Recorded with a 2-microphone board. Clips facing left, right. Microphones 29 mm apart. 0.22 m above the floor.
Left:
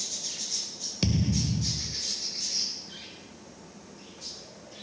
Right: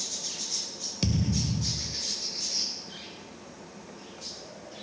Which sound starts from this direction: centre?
A thud, at 1.0 s.